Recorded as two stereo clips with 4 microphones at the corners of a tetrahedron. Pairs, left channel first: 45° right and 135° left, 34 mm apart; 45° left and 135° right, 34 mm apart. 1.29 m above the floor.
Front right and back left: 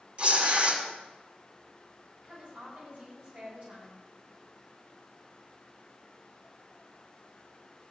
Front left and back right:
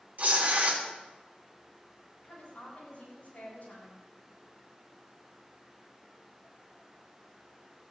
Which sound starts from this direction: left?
A woman speaking, at 2.2 s.